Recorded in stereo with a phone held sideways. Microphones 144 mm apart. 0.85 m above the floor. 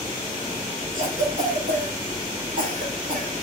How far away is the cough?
About 2 m.